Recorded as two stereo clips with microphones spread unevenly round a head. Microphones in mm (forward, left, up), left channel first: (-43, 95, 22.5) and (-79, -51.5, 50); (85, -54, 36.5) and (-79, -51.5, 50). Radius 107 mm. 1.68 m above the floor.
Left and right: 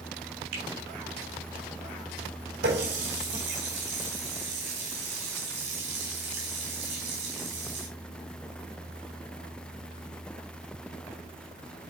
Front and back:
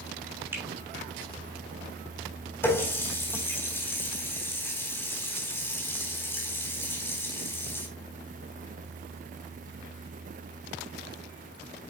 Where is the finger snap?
105° right, 6 m.